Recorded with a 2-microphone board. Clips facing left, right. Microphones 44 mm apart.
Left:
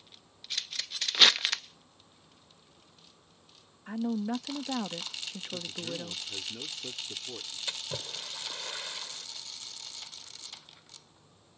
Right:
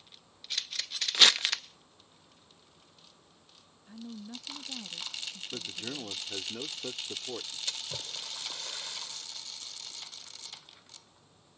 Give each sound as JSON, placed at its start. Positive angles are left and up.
{"t": 1.1, "sound": "crumpling", "side_deg": 5}
{"t": 3.9, "sound": "a woman speaking", "side_deg": 85}
{"t": 5.5, "sound": "a man speaking", "side_deg": -25}
{"t": 7.7, "sound": "a splash", "side_deg": 25}